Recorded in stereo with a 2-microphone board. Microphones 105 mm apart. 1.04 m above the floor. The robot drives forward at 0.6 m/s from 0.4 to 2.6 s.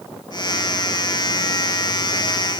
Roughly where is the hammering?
No hammering in this recording.